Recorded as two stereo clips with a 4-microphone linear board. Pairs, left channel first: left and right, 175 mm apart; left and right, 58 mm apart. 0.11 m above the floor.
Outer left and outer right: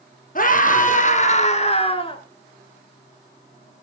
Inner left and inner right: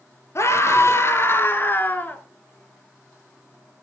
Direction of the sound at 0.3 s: 50° left (ahead or behind).